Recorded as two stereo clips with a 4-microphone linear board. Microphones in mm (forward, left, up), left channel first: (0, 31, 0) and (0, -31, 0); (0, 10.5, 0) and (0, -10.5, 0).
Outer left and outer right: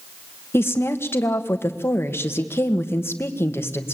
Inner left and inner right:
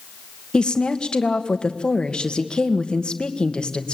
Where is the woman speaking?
35° left (ahead or behind), 1.7 m.